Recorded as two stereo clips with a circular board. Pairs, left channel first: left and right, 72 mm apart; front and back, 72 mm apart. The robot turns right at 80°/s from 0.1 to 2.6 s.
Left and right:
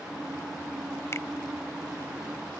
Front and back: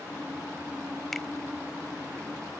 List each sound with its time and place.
1.1 s a finger snap: 80° left; by 1.3 s 95° left